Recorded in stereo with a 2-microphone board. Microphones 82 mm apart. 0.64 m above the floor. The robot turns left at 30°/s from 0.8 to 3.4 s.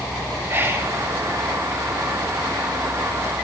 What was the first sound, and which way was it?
Whispering, 30° right (ahead or behind).